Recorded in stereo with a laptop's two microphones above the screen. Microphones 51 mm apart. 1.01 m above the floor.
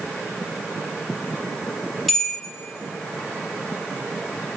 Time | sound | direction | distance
2.1 | a bell | 5° left (ahead or behind) | 0.7 m